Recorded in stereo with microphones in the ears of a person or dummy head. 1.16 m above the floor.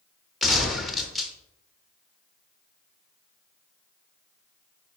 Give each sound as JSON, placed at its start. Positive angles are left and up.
{"t": 0.4, "sound": "a gunshot", "side_deg": 0, "distance_m": 0.9}